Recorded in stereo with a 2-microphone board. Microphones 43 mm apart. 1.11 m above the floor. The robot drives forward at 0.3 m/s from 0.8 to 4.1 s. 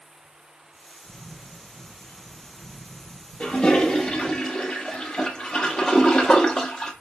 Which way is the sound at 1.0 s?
80° right.